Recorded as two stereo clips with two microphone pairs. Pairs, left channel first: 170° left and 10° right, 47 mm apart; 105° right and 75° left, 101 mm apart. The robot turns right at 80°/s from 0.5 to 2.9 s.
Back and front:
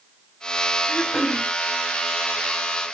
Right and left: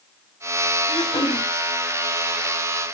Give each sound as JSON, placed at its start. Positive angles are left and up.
{"t": 0.9, "sound": "throat clearing", "azimuth_deg": -130, "distance_m": 2.5}